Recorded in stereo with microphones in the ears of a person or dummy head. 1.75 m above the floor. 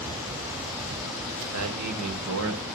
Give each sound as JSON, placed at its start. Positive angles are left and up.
{"t": 1.5, "sound": "a man speaking", "side_deg": -80, "distance_m": 1.6}